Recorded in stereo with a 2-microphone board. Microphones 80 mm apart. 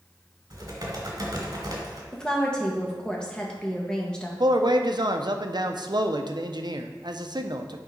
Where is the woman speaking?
10° left (ahead or behind), 1.3 m.